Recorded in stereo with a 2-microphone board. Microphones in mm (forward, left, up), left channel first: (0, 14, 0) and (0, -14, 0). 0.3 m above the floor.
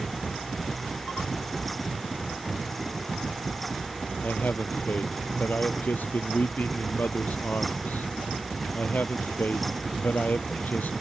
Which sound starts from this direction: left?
A man speaking, at 4.2 s.